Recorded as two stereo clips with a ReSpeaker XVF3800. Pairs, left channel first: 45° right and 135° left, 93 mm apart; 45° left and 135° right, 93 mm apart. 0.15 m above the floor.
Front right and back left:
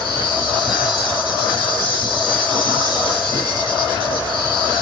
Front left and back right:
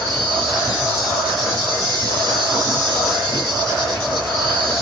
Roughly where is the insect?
Ahead right.